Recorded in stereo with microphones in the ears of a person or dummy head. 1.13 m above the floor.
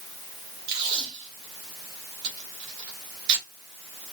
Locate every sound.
0.7 s tape being pulled: 65° right (ahead or behind), 3 m